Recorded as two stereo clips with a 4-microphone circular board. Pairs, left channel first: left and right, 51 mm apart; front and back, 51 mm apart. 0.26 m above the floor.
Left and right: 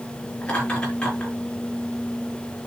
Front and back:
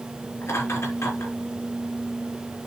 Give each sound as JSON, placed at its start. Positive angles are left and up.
{"t": 0.4, "sound": "laughter", "azimuth_deg": 25, "distance_m": 6.0}